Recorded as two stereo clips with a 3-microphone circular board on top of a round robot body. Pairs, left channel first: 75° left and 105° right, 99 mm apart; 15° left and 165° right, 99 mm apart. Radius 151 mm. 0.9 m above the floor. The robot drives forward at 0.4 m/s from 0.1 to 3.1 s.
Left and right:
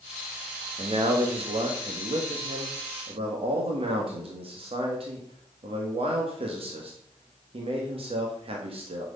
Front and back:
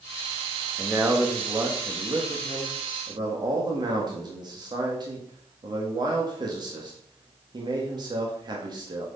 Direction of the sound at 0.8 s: 90° right.